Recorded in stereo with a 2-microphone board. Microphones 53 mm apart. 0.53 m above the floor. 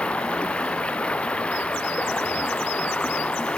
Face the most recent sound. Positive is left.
turn(degrees=20)  # may be behind; listen again after turning